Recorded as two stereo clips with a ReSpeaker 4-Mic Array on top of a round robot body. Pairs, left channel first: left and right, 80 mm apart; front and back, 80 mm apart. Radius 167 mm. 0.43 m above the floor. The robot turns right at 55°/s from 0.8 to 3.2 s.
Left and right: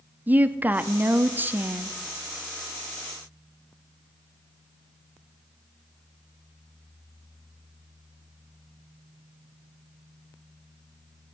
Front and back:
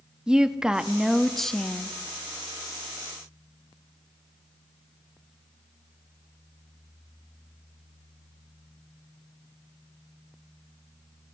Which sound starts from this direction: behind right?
A woman speaking, at 0.3 s.